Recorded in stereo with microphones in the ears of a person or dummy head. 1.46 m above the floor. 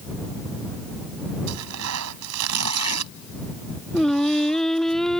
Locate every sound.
1.5 s tearing paper: 90° right
3.9 s singing: 5° left (ahead or behind)